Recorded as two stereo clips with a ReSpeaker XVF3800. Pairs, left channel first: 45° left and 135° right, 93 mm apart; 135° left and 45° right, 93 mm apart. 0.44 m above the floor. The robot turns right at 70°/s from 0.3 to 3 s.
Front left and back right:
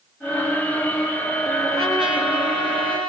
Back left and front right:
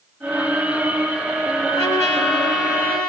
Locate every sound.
1.7 s a trumpet: 170° left, 3.5 m; by 3.1 s 100° right, 3.5 m